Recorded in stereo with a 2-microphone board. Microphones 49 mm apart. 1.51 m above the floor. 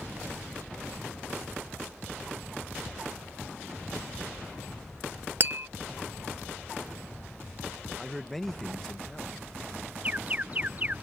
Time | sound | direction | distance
5.4 | tapping | 45° right (ahead or behind) | ?
8.0 | a man speaking | 5° left (ahead or behind) | ?
10.0 | an alarm | 30° right (ahead or behind) | ?